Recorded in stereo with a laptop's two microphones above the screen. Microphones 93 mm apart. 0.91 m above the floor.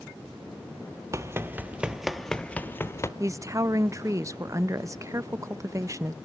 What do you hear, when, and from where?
1.1 s running footsteps: 30° right (ahead or behind), 1.0 m; by 3.1 s 30° left (ahead or behind), 1.0 m
3.2 s a woman speaking: 35° right (ahead or behind), 0.7 m